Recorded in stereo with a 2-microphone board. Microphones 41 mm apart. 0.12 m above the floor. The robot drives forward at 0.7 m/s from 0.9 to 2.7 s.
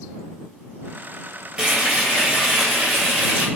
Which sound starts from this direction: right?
Frying, at 1.6 s.